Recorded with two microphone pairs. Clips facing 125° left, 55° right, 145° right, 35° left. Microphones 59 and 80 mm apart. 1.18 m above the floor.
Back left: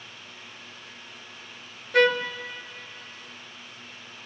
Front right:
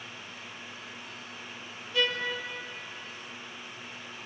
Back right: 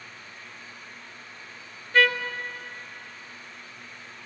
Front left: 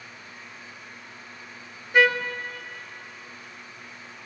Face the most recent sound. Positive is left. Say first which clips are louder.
# back left 9 dB, front left 2 dB
turn(degrees=110)